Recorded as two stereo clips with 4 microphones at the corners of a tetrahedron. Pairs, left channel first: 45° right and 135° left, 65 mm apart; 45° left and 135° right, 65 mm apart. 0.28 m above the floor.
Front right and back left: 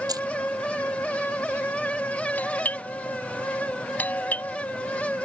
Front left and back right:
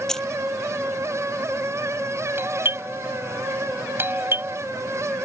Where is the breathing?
No breathing in this recording.